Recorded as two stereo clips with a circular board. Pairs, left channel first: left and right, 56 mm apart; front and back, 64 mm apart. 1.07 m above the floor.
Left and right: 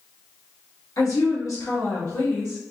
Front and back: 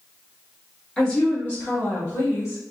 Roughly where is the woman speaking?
Left.